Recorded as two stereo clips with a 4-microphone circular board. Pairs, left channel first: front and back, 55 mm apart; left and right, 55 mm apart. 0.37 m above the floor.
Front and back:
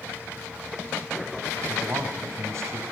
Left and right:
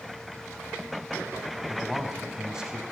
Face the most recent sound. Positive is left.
turn(degrees=-165)